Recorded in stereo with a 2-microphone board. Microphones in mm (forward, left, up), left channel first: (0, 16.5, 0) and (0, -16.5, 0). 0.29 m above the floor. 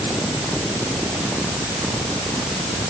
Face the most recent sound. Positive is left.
No sound to turn to.